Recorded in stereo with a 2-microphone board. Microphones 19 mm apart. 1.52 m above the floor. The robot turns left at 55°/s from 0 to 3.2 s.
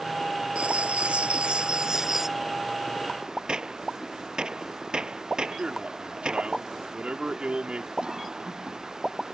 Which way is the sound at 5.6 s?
65° right (ahead or behind).